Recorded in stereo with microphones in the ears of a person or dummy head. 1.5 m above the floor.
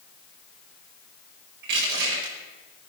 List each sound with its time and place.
1.6 s crushing: 55° right (ahead or behind), 5.5 m